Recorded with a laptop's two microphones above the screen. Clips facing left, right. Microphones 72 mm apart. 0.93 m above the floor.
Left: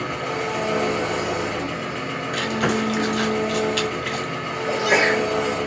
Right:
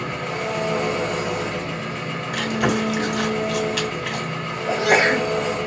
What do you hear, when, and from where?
0.0 s an engine running: 5° left (ahead or behind), 1.1 m
2.3 s chewing: 5° right (ahead or behind), 1.2 m
4.7 s a sneeze: 55° right (ahead or behind), 0.8 m